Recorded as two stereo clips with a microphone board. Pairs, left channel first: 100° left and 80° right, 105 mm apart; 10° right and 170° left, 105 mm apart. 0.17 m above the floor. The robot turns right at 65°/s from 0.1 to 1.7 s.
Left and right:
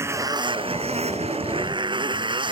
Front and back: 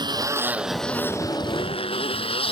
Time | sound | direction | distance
0.0 | a motorcycle | 145° right | ?